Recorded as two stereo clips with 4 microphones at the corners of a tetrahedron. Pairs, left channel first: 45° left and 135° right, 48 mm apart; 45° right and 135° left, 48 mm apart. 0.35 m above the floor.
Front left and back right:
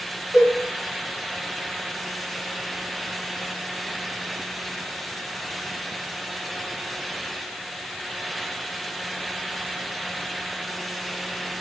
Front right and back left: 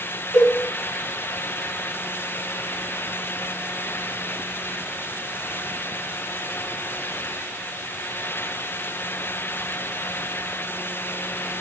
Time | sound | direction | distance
0.3 | a cowbell | 135° left | 3 m